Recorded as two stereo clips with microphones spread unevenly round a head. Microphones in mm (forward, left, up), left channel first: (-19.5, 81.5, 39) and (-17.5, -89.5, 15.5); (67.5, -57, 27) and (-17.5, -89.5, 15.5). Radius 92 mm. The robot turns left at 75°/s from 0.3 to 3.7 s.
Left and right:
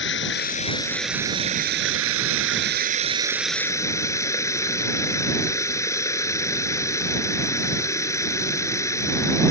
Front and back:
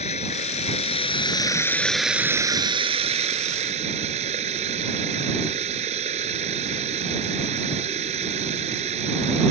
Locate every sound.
0.0 s running water: 60° left; by 9.5 s 165° left